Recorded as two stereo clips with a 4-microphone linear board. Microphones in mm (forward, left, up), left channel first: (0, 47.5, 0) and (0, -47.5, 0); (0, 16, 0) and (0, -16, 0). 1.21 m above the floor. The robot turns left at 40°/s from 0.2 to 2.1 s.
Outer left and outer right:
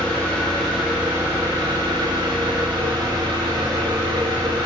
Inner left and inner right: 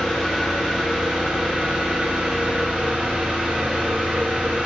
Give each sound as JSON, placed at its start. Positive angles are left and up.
{"t": 0.0, "sound": "an engine running", "azimuth_deg": 15, "distance_m": 1.4}